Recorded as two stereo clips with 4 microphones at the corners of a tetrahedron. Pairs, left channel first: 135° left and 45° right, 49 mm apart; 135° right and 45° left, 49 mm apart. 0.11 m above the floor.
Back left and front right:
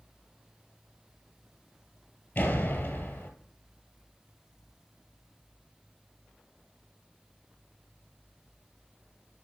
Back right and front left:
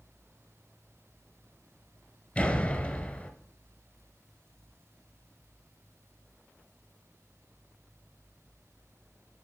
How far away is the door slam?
About 1.3 m.